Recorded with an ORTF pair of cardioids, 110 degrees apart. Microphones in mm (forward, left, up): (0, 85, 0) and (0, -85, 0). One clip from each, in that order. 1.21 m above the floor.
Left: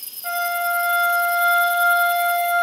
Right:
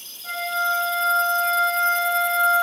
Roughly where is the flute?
Ahead left.